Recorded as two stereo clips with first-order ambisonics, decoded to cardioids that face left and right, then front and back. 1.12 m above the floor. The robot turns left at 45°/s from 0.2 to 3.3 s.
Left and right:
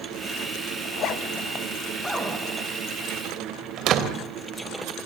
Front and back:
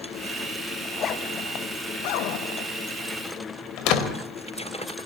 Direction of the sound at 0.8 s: 60° left.